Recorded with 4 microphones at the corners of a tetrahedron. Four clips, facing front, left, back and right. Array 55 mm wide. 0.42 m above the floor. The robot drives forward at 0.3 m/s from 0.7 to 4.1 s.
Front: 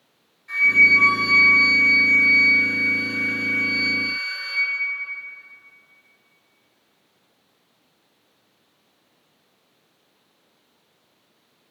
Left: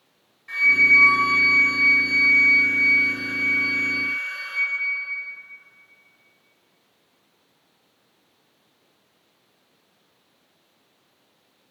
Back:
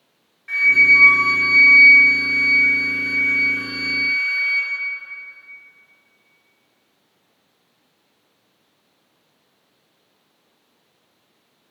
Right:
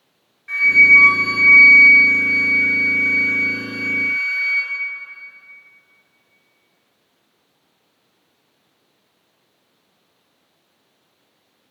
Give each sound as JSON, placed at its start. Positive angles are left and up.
{"t": 0.5, "sound": "a flute", "azimuth_deg": -145, "distance_m": 3.5}